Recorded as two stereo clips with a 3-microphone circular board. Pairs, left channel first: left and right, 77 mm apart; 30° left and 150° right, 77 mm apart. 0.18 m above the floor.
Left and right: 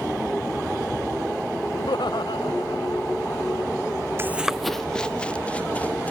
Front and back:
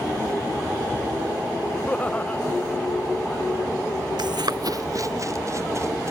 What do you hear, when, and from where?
1.7 s laughter: 100° left
4.2 s running footsteps: 145° right; by 6.1 s 160° left